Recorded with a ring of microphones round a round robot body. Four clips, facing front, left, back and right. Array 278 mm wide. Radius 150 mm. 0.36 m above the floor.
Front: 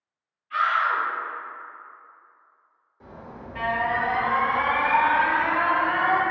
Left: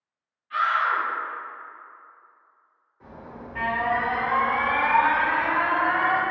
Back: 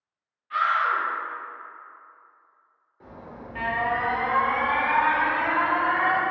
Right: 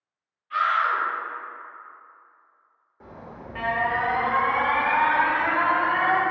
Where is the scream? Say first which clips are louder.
Even, even; 170° right, 1.9 m.